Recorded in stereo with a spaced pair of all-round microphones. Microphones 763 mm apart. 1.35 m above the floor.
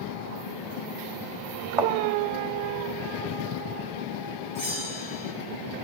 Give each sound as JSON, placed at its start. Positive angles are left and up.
{"t": 1.8, "sound": "a thud", "side_deg": -45, "distance_m": 1.4}
{"t": 4.5, "sound": "a bell", "side_deg": 50, "distance_m": 3.0}